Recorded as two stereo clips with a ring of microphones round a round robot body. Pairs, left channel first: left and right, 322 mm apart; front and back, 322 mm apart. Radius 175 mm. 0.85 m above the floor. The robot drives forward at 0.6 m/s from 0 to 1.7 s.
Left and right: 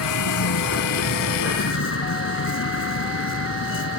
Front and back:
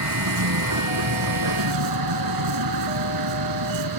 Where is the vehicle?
135° left; by 4.0 s 140° left.